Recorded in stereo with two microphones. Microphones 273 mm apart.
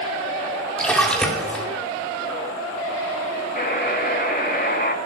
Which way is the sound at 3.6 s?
35° left (ahead or behind).